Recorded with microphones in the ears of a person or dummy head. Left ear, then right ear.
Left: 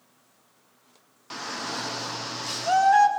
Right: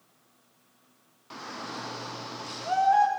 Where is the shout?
25° left (ahead or behind), 0.6 m.